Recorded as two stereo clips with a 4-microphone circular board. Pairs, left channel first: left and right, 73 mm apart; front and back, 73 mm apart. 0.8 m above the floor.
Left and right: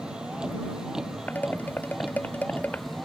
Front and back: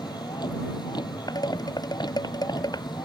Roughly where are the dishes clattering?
Ahead left.